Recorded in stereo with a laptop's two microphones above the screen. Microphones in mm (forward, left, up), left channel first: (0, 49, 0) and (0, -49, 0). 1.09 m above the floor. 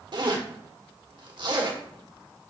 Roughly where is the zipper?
Right.